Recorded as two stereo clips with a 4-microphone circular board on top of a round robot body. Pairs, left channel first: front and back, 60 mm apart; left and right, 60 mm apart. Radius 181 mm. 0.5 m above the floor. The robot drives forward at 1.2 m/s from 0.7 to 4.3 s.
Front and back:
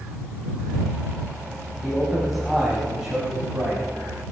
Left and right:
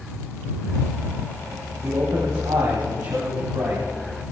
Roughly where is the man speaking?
Right.